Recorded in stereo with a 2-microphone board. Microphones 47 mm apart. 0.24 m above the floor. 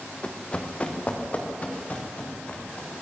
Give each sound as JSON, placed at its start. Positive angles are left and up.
{"t": 0.2, "sound": "running footsteps", "side_deg": 20, "distance_m": 2.0}